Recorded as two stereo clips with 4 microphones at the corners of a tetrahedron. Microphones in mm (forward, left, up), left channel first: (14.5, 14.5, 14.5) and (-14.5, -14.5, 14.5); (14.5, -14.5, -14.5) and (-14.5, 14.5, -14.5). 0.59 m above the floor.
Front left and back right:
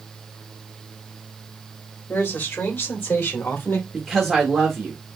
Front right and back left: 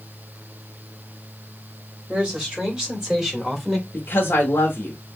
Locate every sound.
2.1 s a man speaking: 65° left, 3 m; by 3.8 s 45° left, 2 m
3.9 s a woman speaking: 45° right, 1.4 m